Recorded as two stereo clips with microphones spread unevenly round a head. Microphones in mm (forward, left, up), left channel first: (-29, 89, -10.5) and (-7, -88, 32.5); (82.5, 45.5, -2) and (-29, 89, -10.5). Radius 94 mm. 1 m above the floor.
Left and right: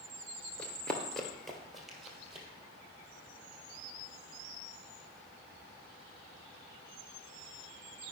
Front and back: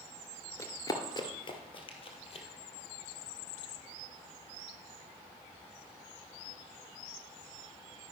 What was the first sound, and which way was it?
Running footsteps, 10° right.